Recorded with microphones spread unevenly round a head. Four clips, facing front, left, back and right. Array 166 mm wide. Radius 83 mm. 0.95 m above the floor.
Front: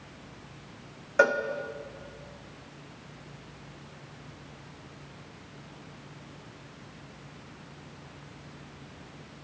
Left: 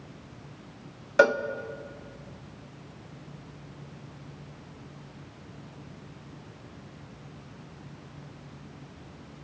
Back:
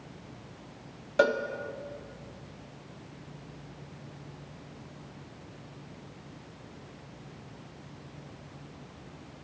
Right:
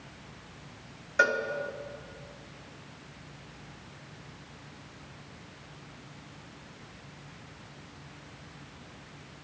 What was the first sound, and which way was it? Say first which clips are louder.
A cowbell: left 6 dB, front 2 dB; 50° left.